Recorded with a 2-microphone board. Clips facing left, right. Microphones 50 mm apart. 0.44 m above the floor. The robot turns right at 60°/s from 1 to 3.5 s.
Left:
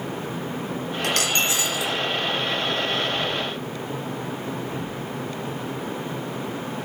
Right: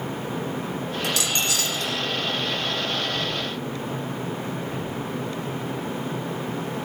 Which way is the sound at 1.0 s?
125° left.